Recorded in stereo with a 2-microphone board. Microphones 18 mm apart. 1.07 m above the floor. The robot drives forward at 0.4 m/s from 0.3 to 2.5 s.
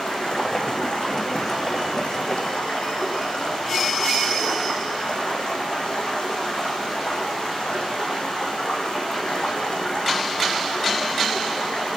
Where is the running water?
65° left (ahead or behind), 6.5 m; by 12.0 s 70° left (ahead or behind), 6 m.